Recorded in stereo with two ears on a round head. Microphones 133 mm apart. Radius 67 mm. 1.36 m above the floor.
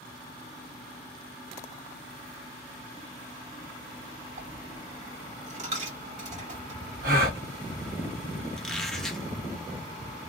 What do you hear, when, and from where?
4.4 s a dropped coin: 45° right (ahead or behind), 2 m
7.0 s a gasp: 65° right (ahead or behind), 1.2 m
8.6 s a squeak: 5° left (ahead or behind), 0.8 m